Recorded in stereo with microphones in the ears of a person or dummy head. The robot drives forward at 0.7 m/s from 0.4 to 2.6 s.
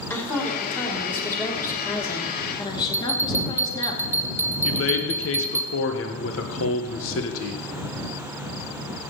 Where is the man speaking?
70° left (ahead or behind), 1.2 m.